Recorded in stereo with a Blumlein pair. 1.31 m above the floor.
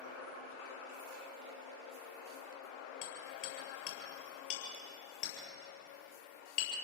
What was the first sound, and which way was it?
Hammering, 45° left.